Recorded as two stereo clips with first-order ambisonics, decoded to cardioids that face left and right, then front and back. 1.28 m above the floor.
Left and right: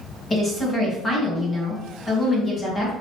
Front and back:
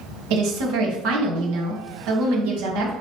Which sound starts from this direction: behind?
A woman speaking, at 0.3 s.